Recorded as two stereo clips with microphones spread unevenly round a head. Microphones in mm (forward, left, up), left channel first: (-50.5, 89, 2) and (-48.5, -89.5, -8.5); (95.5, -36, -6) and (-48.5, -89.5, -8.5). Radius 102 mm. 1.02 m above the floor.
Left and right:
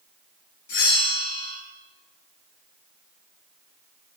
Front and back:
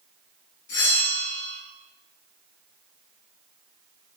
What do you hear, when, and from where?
0.7 s a bell: 50° left, 4 m